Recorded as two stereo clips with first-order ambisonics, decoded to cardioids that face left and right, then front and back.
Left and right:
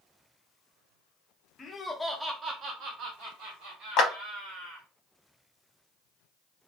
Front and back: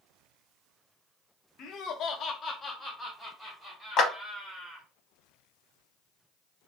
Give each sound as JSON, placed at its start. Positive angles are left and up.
{"t": 1.6, "sound": "laughter", "azimuth_deg": 30, "distance_m": 0.6}
{"t": 4.0, "sound": "a clap", "azimuth_deg": 50, "distance_m": 0.6}